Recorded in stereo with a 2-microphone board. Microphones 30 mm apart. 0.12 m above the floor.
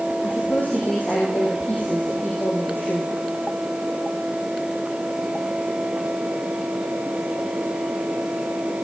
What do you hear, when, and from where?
0.2 s a woman speaking: 75° left (ahead or behind), 6 m